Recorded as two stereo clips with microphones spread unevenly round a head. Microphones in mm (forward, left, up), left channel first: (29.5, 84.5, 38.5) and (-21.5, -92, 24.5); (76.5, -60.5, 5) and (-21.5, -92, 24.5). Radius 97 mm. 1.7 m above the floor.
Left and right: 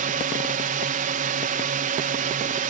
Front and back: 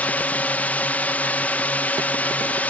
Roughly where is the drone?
Ahead right.